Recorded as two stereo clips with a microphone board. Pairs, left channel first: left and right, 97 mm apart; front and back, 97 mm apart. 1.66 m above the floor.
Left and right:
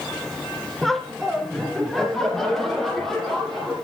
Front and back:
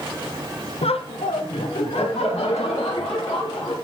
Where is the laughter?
Straight ahead, 0.8 m.